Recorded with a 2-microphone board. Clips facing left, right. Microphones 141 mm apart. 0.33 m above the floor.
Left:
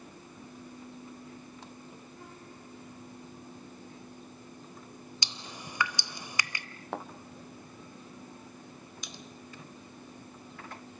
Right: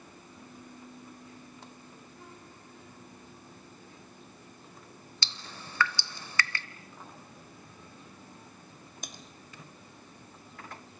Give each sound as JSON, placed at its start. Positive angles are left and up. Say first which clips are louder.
{"t": 5.2, "sound": "dripping", "louder": "even", "side_deg": 15, "distance_m": 0.8}
{"t": 6.9, "sound": "a thud", "louder": "left 15 dB", "side_deg": 80, "distance_m": 2.0}
{"t": 9.0, "sound": "typing on a keyboard", "louder": "right 2 dB", "side_deg": -50, "distance_m": 1.9}